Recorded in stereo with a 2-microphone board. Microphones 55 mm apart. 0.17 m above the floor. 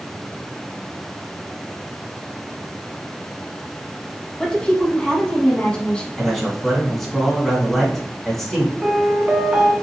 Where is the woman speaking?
20° left (ahead or behind), 1.0 m.